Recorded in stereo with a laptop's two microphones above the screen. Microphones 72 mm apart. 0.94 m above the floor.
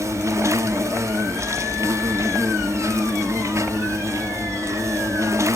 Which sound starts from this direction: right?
An insect, at 0.0 s.